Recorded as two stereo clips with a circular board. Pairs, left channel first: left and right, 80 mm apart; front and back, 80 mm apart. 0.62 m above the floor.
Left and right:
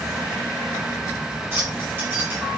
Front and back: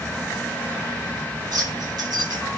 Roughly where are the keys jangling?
Behind right.